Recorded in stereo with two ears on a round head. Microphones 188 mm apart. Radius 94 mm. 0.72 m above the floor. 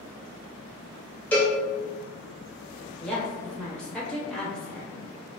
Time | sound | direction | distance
1.3 | a cowbell | 10° left (ahead or behind) | 0.6 m
3.0 | a woman speaking | 5° left (ahead or behind) | 0.8 m